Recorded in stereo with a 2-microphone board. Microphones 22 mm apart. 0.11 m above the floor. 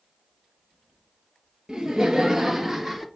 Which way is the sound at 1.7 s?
30° right (ahead or behind).